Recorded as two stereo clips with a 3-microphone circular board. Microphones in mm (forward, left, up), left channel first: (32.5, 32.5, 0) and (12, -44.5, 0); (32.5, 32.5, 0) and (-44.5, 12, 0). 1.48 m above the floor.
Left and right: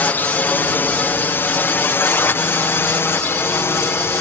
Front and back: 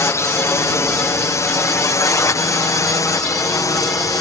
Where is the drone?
25° left; by 4.2 s 30° left.